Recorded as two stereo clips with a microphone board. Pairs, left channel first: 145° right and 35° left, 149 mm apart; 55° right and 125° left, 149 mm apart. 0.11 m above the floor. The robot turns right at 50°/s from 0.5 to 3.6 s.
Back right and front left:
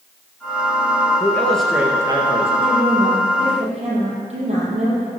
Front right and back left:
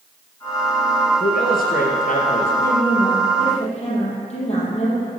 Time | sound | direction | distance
1.2 | a man speaking | 80° right | 2.5 m
2.6 | a woman speaking | 60° right | 5.5 m